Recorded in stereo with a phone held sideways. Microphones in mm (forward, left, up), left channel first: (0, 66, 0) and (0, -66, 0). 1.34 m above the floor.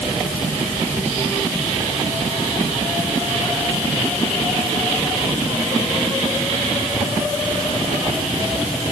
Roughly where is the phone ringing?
I don't hear a phone ringing.